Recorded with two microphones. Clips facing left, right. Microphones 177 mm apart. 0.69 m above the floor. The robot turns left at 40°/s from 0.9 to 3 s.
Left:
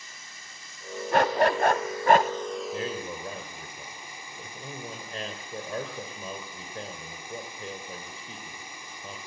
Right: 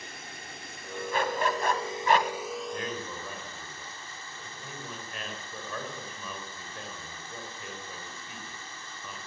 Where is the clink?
I don't hear a clink.